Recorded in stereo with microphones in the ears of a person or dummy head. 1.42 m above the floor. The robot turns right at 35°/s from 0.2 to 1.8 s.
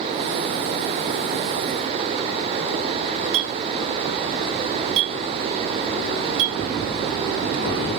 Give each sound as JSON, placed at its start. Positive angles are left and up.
{"t": 3.3, "sound": "a clink", "side_deg": -75, "distance_m": 2.0}